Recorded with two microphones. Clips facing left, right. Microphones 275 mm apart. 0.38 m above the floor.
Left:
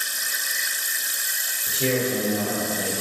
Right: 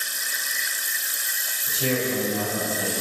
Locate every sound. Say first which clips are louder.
1.7 s a man speaking: left 2 dB; 30° left (ahead or behind), 1.4 m